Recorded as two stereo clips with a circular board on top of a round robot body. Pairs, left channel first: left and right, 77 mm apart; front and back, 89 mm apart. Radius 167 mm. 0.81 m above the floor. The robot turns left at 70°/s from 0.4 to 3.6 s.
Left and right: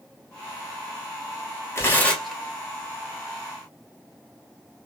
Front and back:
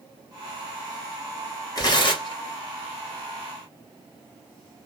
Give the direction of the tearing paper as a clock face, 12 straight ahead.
11 o'clock.